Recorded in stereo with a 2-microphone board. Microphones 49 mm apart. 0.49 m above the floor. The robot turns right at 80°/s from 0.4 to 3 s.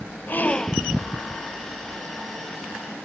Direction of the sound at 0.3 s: 145° left.